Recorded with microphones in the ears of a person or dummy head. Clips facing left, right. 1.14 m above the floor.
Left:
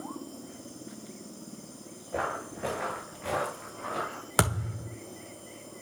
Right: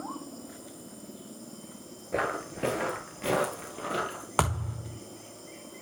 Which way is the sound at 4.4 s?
20° left (ahead or behind).